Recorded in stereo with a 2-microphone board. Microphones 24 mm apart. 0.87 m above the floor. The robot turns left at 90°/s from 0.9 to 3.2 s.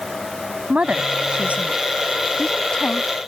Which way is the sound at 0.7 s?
50° right (ahead or behind).